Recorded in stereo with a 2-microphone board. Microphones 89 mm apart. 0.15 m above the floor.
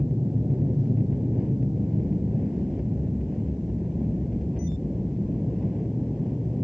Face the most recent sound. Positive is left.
turn(degrees=0)  # may be behind; listen again after turning